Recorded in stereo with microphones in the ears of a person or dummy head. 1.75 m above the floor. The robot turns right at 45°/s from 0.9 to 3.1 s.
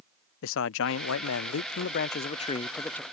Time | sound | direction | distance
0.4 | a man speaking | 75° left | ?